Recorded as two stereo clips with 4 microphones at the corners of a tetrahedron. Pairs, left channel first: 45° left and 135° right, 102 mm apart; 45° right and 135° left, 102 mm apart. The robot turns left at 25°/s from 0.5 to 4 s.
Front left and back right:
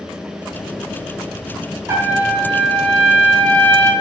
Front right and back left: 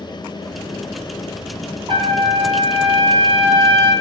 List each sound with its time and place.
1.9 s a trumpet: 160° left, 0.6 m; by 3.9 s 110° left, 0.6 m